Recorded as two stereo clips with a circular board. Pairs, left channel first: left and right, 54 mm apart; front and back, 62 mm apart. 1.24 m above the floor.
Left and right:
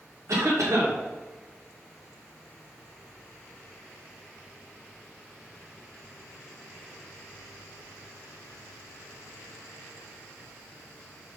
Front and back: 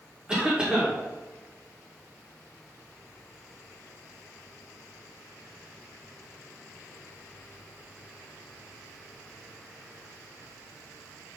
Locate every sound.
0.3 s a cough: 105° right, 1.3 m